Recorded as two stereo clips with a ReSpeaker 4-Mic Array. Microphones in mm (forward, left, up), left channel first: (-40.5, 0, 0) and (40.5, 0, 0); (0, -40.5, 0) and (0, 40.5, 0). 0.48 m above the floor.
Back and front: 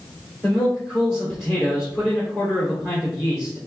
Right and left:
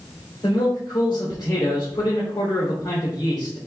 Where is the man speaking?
90° right, 1.5 m.